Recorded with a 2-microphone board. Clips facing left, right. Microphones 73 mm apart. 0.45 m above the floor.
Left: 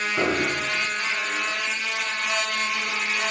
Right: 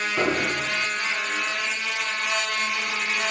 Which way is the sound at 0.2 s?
10° right (ahead or behind).